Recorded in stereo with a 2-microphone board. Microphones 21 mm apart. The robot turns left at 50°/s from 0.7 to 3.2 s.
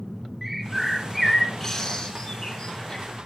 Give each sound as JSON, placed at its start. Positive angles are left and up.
{"t": 0.4, "sound": "a bird", "side_deg": -5, "distance_m": 2.5}